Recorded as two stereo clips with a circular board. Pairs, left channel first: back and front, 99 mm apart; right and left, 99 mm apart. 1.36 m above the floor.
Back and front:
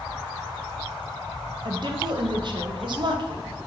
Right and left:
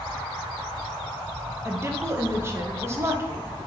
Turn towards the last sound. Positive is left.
turn(degrees=30)